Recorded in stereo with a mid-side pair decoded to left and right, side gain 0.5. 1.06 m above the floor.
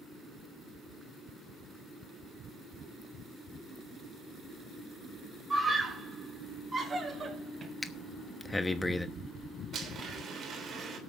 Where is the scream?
20° right, 6 m; by 7.7 s 30° right, 5.5 m.